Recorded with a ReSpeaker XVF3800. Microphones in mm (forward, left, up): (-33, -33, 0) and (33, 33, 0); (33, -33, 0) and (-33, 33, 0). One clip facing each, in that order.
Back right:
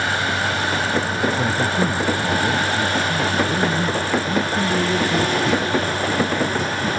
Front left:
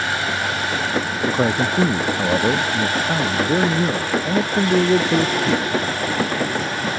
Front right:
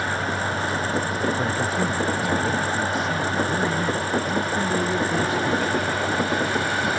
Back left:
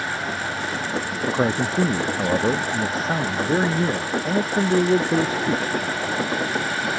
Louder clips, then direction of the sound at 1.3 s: Front left 2 dB, back left 2 dB; 80° left.